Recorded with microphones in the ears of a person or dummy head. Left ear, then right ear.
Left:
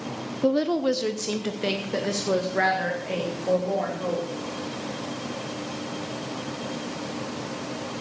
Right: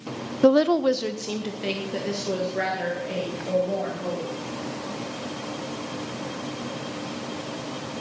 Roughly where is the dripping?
No dripping in this recording.